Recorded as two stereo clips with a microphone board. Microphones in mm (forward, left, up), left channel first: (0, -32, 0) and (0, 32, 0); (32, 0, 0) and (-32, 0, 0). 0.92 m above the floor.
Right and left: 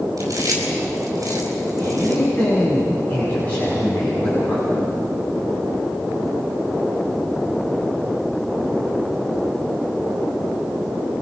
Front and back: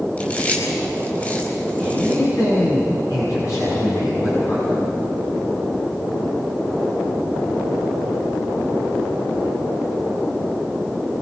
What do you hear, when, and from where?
0.2 s chewing: 60° left, 5 m
1.8 s a man speaking: 30° right, 7 m